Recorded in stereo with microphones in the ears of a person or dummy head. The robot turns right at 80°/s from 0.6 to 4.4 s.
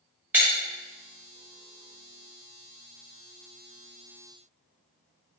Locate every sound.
0.3 s breaking glass: 5° right (ahead or behind), 1.4 m